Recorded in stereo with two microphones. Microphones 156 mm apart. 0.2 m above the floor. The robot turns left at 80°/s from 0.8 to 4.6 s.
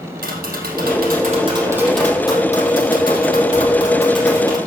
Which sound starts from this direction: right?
Tapping, at 0.2 s.